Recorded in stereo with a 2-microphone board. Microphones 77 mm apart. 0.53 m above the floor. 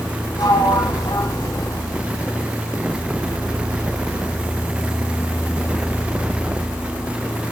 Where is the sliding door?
65° left (ahead or behind), 4.5 m.